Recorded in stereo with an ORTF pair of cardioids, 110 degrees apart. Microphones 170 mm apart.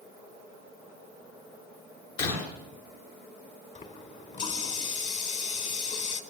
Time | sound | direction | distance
2.2 | breaking glass | 65° left | 10 m
3.8 | a running tap | 40° left | 4.5 m